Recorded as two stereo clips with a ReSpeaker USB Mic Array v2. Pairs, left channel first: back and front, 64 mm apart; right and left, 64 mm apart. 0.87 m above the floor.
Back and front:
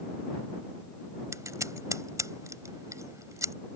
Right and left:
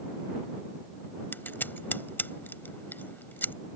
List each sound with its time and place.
1.3 s scissors: 30° right